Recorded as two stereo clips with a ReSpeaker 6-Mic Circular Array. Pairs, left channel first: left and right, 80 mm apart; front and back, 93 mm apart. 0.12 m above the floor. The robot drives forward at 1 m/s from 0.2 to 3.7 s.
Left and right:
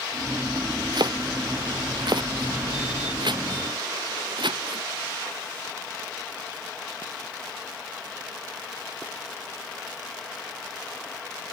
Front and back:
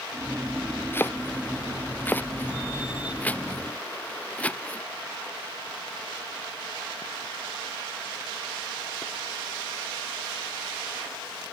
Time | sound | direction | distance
0.9 | chopping | 65° right | ?